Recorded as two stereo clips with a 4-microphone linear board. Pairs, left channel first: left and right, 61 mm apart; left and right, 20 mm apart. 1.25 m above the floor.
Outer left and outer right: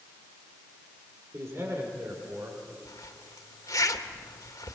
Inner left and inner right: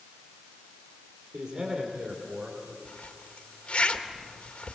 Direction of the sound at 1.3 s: 50° right (ahead or behind).